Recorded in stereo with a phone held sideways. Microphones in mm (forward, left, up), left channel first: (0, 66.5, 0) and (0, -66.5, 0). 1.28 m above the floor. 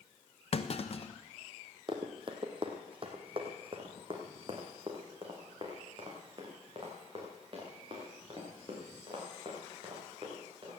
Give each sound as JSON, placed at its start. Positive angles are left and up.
{"t": 0.5, "sound": "a clunk", "side_deg": 50, "distance_m": 0.9}
{"t": 1.9, "sound": "running footsteps", "side_deg": -40, "distance_m": 1.9}